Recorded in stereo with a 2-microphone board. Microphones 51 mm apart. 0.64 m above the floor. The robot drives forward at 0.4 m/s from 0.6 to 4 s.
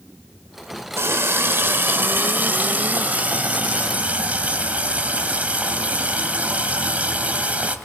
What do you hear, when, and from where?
1.0 s a running tap: 55° right (ahead or behind), 1.2 m; by 7.8 s 30° right (ahead or behind), 2 m